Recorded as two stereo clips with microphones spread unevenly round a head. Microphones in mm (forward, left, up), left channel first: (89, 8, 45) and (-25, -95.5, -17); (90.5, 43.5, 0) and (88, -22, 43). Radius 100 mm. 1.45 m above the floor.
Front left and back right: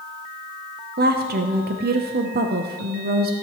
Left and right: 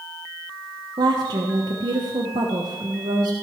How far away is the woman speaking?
About 0.9 m.